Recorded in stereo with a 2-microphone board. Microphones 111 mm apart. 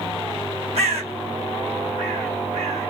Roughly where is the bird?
Right.